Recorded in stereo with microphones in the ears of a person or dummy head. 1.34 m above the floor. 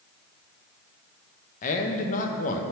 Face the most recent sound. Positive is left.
turn(degrees=40)  # may be behind; listen again after turning